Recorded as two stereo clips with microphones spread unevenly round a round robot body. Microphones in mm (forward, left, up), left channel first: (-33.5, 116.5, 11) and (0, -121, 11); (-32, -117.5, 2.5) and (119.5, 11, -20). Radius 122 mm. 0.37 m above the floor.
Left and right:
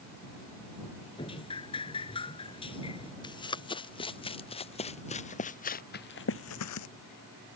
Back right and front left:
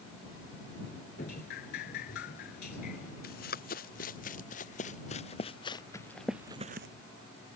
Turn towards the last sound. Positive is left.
turn(degrees=80)